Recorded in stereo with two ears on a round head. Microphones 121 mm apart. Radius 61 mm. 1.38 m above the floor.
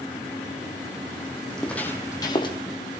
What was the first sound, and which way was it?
Footsteps, 5° left (ahead or behind).